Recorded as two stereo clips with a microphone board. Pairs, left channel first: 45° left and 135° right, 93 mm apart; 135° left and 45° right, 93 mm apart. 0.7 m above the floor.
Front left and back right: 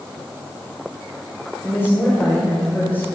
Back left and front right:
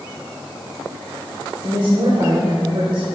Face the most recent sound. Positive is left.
turn(degrees=-20)